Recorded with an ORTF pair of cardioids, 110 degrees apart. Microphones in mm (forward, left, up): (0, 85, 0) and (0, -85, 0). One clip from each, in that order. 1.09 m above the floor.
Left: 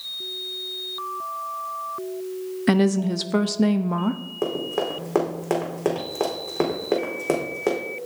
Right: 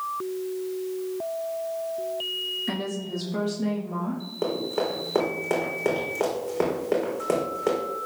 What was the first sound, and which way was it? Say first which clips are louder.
A woman speaking: left 9 dB; 65° left.